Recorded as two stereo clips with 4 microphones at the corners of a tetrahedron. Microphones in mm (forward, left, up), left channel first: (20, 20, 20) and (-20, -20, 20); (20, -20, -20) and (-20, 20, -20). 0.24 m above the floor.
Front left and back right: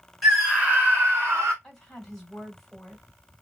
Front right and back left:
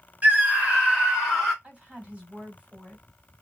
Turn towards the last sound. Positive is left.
turn(degrees=120)